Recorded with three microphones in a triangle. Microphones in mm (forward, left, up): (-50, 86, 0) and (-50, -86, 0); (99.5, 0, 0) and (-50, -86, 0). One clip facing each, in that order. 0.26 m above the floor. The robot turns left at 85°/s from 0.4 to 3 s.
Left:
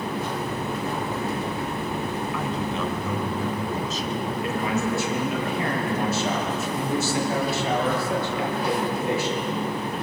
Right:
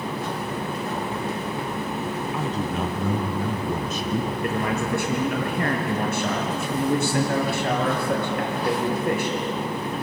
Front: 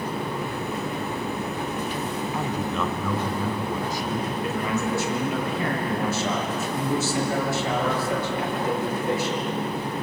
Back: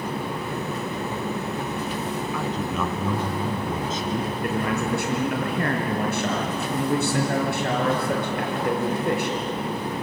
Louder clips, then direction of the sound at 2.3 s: Right 1 dB, front 1 dB; 30° right.